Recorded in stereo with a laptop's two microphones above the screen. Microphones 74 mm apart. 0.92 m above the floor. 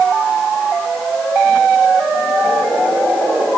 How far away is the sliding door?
No sliding door in this recording.